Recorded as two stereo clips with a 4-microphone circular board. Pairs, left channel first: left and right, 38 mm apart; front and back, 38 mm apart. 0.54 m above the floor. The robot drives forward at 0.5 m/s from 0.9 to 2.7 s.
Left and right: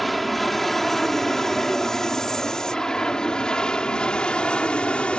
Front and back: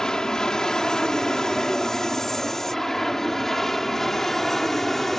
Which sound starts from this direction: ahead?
An aircraft, at 0.0 s.